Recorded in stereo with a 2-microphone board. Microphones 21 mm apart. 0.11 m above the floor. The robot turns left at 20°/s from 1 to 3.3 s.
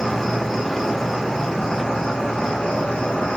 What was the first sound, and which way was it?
An insect, 175° left.